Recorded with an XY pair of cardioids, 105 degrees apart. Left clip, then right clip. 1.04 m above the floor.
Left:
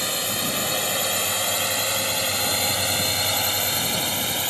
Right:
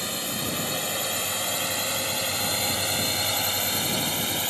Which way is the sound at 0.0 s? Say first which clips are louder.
Left 4 dB; 40° left.